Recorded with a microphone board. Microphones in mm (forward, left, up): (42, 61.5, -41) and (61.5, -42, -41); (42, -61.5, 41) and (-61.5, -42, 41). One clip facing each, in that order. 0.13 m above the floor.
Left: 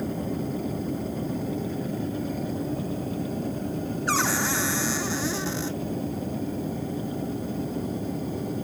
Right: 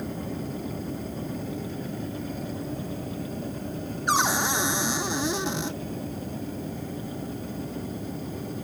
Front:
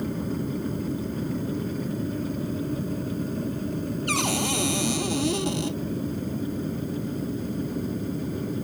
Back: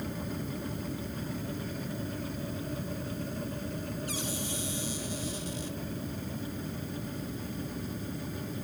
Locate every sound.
0.0 s an aircraft: 30° left
4.1 s a cupboard door: 10° right